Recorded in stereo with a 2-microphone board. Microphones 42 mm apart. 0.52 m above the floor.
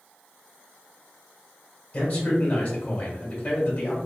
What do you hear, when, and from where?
1.9 s a man speaking: 30° left (ahead or behind), 2.0 m